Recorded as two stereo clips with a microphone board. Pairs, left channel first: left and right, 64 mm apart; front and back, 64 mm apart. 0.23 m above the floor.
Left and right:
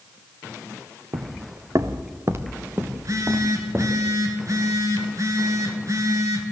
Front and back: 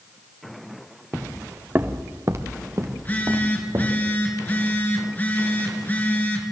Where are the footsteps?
95° right, 1.0 m; by 3.9 s 150° right, 3 m.